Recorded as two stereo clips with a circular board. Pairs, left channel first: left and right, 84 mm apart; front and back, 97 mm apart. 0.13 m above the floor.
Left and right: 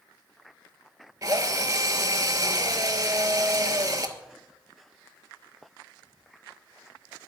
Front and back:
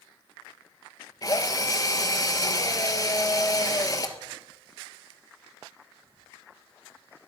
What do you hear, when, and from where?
1.2 s a drill: 45° right, 1.3 m